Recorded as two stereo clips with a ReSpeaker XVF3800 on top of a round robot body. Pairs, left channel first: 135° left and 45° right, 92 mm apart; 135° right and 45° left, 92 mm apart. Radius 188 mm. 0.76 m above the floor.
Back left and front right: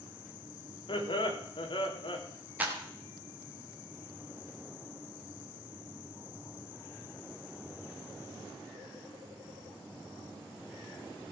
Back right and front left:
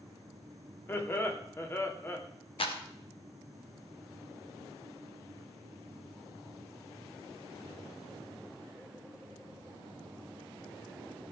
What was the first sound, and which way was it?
Laughter, 160° left.